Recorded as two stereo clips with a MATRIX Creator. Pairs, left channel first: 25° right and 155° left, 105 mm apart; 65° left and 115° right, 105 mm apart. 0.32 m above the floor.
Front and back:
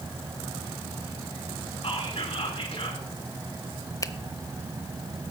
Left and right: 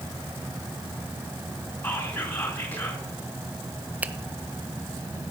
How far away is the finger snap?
About 0.7 m.